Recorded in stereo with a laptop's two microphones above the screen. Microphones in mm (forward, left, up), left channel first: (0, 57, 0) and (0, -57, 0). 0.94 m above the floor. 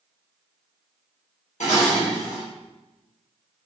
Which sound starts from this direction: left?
Dishes clattering, at 1.6 s.